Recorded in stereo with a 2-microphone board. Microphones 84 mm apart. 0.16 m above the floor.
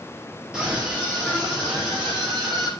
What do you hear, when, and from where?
0.5 s a scream: 10° right (ahead or behind), 3.5 m; by 2.7 s centre (ahead or behind), 5.5 m